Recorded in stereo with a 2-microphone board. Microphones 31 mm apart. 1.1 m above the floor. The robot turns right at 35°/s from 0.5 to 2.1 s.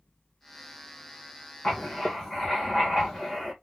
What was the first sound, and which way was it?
Writing, 15° left (ahead or behind).